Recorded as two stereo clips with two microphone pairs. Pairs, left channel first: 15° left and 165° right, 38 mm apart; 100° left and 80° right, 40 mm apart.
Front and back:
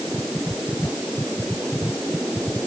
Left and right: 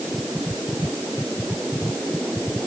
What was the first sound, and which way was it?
Only background noise.